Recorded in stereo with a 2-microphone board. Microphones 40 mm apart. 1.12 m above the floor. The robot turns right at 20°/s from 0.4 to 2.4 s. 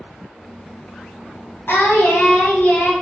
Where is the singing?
65° left (ahead or behind), 3.5 m; by 2.9 s 50° left (ahead or behind), 3.5 m.